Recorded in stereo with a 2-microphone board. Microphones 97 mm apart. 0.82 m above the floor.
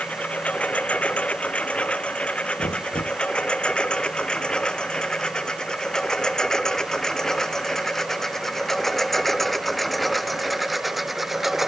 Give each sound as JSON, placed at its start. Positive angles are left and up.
{"t": 0.0, "sound": "a lawn mower", "side_deg": 15}
{"t": 2.6, "sound": "knocking", "side_deg": 70}